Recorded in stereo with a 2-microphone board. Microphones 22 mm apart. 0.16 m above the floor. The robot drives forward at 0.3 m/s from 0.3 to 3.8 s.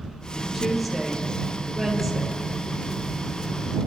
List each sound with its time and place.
0.5 s a woman speaking: 5° left (ahead or behind), 3 m